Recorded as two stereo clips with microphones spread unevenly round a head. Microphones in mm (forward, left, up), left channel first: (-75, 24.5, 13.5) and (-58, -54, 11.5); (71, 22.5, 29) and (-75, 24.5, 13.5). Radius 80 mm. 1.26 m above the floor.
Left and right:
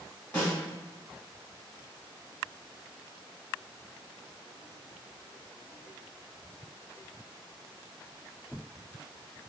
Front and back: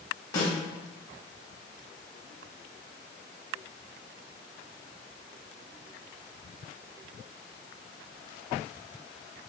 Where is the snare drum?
35° left, 1.2 m.